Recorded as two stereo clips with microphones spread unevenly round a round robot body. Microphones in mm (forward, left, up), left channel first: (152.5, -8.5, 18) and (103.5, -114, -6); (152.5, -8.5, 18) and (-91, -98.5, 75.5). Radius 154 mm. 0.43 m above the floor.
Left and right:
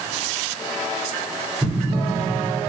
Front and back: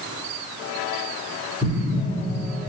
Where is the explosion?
80° right, 1.6 m.